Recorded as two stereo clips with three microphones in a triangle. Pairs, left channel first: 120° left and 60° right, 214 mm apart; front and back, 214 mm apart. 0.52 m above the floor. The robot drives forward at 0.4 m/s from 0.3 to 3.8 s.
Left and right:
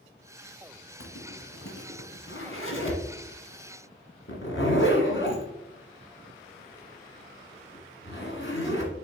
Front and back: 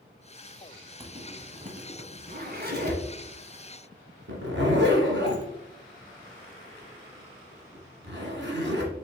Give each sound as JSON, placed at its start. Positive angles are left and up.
{"t": 1.0, "sound": "a zipper", "azimuth_deg": 115, "distance_m": 1.2}